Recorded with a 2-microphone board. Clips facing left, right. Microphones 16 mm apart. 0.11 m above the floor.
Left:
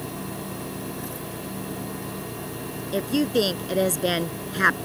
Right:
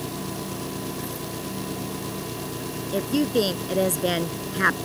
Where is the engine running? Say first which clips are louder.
Right 2 dB; 70° right (ahead or behind).